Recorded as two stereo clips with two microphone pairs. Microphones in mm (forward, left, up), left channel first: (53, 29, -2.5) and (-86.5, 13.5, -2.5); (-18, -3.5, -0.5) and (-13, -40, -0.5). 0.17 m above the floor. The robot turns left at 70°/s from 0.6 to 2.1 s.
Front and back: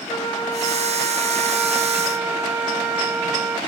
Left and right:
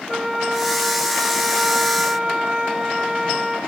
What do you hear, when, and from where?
0.1 s a flute: 5° right, 0.7 m; by 3.6 s 110° right, 0.7 m